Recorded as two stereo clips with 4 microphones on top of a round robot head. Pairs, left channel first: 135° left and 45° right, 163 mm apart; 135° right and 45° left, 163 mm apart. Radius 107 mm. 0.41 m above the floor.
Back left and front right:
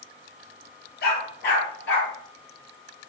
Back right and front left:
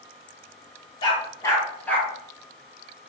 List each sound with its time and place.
1.0 s a dog barking: 165° left, 3 m; by 2.1 s 140° left, 3.5 m